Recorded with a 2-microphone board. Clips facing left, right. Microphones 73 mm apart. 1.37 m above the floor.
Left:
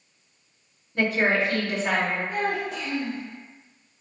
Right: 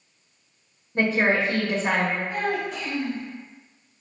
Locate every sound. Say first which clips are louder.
0.9 s a woman speaking: right 1 dB; 30° right (ahead or behind), 0.9 m
2.3 s a child speaking: even; 50° left (ahead or behind), 0.9 m